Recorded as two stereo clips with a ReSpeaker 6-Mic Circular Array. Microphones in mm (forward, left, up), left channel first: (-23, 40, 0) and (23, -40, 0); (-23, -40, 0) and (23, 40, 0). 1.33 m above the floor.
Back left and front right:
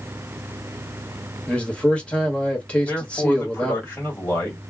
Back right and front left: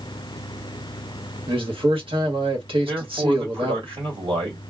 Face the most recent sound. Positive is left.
turn(degrees=55)